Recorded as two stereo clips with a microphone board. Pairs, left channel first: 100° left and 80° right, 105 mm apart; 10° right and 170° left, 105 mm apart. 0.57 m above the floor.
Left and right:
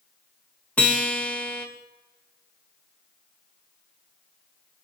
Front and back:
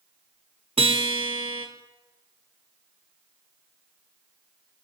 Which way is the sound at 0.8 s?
175° left.